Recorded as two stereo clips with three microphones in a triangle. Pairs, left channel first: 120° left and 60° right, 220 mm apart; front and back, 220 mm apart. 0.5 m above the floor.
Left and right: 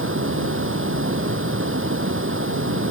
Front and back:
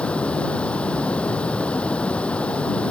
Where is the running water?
85° right.